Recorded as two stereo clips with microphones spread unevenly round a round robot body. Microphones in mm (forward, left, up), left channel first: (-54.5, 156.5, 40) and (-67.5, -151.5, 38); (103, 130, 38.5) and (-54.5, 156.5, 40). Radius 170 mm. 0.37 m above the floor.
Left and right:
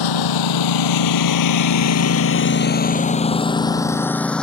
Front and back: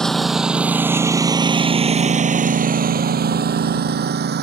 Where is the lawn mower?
75° left; by 4.4 s 175° left.